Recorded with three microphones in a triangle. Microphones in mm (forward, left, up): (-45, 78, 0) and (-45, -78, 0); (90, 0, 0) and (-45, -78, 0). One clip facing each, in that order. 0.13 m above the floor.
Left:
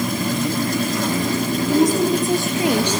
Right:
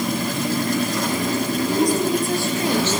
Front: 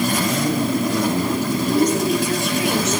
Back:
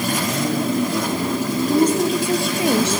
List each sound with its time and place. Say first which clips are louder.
1.7 s a woman speaking: left 4 dB, back 1 dB; 155° left, 2.5 m; by 3.0 s 165° left, 1.8 m